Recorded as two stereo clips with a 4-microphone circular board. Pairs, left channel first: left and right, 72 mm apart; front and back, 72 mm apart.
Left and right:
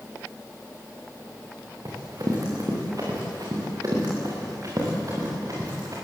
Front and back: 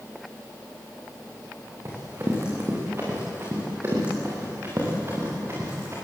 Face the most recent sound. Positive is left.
turn(degrees=-125)